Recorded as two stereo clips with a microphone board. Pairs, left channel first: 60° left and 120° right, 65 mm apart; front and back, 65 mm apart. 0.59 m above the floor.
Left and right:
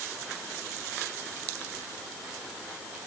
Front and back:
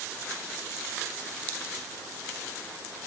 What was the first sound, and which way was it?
Only background noise.